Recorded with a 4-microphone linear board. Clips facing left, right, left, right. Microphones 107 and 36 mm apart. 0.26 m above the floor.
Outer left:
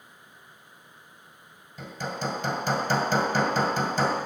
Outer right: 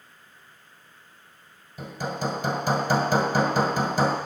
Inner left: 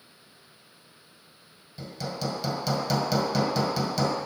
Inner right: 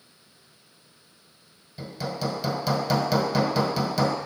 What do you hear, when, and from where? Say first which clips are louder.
1.8 s hammering: outer right 3 dB, inner right 3 dB; 10° right (ahead or behind), 1.3 m